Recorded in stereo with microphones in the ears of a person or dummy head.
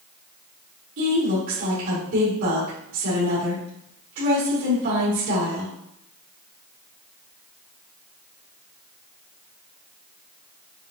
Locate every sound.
1.0 s a woman speaking: 70° right (ahead or behind), 2.5 m